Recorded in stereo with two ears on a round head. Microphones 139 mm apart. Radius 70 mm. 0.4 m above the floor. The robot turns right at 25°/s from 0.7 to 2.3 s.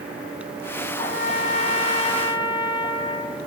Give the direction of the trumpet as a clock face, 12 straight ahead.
8 o'clock.